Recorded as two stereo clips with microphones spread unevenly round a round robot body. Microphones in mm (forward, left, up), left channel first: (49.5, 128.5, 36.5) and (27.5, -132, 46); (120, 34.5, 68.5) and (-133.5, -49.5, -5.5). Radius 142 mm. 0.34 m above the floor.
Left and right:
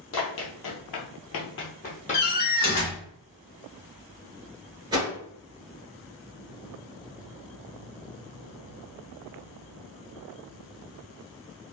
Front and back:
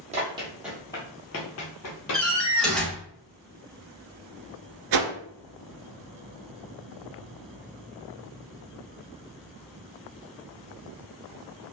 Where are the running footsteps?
125° left, 0.8 m; by 2.3 s 15° left, 0.9 m.